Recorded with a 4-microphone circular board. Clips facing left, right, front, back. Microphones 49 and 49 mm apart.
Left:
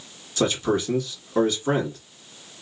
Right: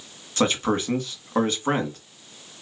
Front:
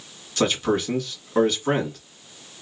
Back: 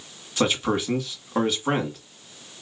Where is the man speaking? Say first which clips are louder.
Even, front 1 dB; 105° right, 1.7 m.